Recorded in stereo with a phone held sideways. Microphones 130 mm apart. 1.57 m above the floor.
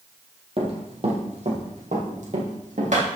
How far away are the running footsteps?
About 3 m.